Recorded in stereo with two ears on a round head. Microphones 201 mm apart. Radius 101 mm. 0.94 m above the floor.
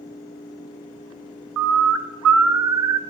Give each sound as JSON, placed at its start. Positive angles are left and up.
{"t": 1.6, "sound": "a bird", "side_deg": -75, "distance_m": 0.9}